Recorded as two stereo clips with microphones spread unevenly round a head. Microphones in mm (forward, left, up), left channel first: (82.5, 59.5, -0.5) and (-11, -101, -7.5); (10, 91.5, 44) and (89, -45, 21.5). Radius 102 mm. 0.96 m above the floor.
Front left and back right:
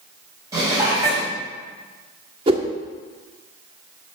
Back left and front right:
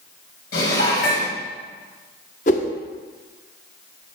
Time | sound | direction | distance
0.5 | dishes clattering | 165° left | 4 m
2.5 | a whoosh | 175° left | 1.2 m